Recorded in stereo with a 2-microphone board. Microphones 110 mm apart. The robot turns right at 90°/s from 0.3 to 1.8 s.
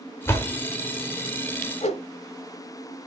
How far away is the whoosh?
About 0.8 m.